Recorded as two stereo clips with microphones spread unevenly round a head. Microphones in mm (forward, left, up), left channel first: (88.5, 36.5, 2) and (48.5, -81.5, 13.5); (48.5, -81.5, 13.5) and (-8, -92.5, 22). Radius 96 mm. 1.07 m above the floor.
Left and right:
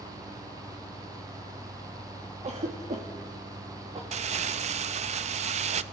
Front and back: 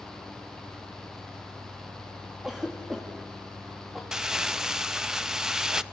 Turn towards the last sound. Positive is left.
turn(degrees=-90)